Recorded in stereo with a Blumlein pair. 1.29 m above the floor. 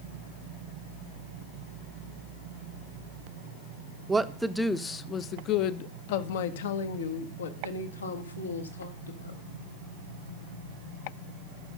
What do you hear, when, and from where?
4.1 s a woman speaking: 10° right, 1.0 m; by 9.4 s 80° left, 2.5 m